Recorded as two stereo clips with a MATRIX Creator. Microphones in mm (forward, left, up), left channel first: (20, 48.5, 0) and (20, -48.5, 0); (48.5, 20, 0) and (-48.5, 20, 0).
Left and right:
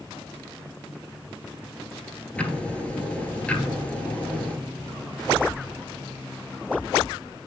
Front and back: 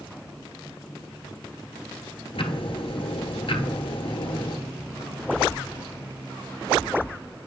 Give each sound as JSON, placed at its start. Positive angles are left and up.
{"t": 2.4, "sound": "ticking", "azimuth_deg": 15, "distance_m": 1.1}